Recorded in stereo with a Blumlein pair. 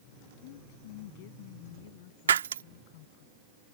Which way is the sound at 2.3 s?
65° right.